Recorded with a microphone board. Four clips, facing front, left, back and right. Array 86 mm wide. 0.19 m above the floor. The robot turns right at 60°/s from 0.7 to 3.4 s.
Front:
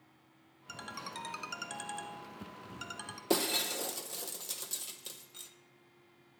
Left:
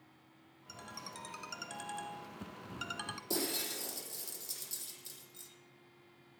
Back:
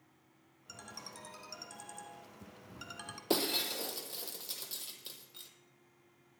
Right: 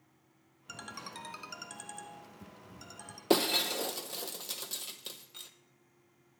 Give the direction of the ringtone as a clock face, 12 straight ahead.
2 o'clock.